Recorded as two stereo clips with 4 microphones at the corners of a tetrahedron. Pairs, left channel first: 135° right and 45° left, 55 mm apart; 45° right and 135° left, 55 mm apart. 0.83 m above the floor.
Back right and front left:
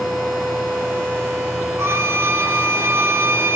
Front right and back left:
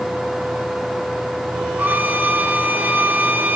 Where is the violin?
80° left, 1.2 m.